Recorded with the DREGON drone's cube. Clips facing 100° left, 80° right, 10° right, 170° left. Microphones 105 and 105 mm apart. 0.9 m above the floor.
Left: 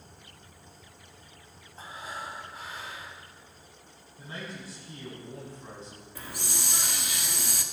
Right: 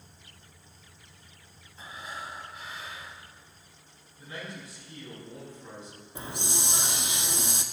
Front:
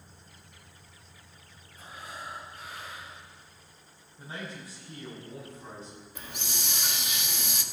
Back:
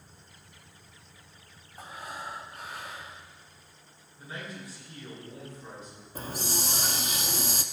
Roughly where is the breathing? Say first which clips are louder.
Left 1 dB, back 3 dB; behind left.